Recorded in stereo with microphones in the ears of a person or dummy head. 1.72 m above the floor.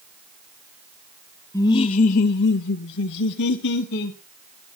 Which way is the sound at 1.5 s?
15° left (ahead or behind).